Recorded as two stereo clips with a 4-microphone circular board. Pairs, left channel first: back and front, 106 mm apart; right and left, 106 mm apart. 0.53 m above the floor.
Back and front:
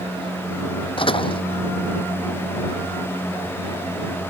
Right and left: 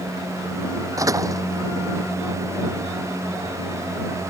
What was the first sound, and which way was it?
A door slam, 145° left.